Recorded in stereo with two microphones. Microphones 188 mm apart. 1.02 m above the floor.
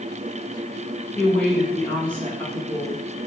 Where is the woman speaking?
10° left (ahead or behind), 1.0 m.